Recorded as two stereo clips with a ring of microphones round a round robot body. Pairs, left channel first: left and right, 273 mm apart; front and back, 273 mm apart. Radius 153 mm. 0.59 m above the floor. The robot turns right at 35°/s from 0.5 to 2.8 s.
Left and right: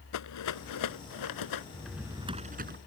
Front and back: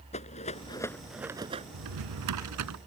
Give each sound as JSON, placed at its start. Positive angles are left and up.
{"t": 0.1, "sound": "a rattle", "azimuth_deg": 70}
{"t": 1.7, "sound": "a drawer", "azimuth_deg": 175}